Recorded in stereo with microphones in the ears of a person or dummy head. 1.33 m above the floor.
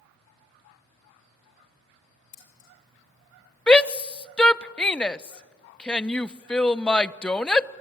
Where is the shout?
5° left (ahead or behind), 0.6 m.